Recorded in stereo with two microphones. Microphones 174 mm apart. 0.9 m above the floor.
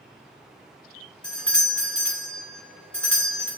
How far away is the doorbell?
About 1.5 m.